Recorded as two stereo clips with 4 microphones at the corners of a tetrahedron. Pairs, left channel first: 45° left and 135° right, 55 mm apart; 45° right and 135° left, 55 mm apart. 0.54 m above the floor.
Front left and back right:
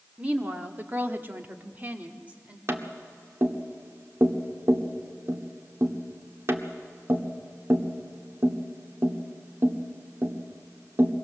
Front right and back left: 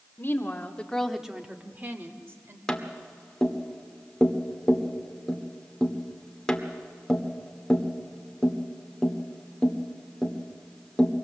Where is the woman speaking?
75° right, 1.5 m; by 2.6 s 165° left, 2 m.